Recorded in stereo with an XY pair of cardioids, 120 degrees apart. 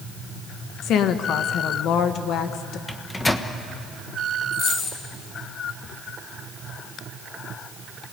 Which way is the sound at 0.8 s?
65° left.